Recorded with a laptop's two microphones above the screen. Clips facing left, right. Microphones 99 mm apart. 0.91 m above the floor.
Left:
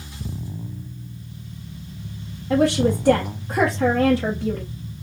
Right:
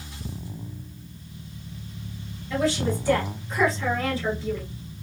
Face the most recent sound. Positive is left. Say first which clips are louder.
# left 7 dB
turn(degrees=60)  # may be behind; listen again after turning